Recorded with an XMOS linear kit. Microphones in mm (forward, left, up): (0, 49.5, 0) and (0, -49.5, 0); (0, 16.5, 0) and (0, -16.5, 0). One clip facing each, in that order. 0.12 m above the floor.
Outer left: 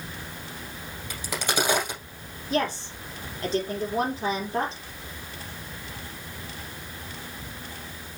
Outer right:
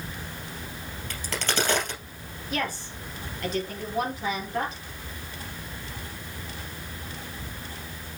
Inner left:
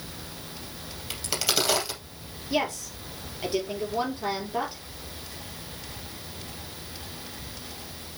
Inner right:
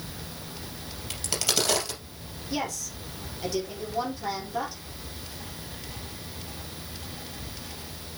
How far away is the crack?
About 3 m.